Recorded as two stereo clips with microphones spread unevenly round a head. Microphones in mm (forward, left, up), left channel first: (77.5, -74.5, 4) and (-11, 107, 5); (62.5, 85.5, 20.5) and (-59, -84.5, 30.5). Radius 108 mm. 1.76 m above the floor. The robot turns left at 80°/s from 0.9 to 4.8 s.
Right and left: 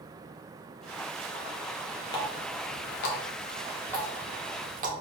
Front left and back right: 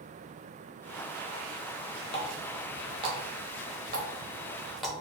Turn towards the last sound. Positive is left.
turn(degrees=145)